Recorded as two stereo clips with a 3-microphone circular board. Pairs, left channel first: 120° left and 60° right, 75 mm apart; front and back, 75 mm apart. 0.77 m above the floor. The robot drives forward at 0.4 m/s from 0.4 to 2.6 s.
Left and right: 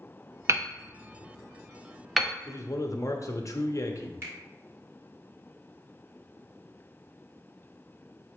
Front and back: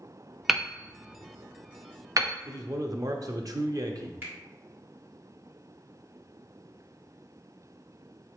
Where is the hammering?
90° right, 0.6 m; by 2.3 s 150° right, 0.9 m.